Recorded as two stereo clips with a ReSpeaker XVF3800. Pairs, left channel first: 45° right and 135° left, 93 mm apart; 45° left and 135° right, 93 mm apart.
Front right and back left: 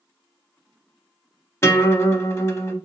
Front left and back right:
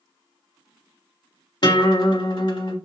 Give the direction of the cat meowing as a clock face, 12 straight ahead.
No cat meowing in this recording.